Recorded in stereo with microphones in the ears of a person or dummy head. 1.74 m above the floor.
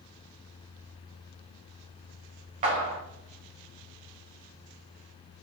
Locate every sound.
2.6 s a clap: 35° right (ahead or behind), 1.2 m